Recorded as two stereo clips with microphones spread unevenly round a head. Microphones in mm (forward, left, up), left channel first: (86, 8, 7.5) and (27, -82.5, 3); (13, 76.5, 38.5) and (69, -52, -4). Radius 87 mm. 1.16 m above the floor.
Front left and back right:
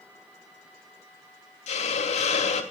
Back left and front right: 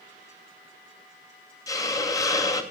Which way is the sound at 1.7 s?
45° left.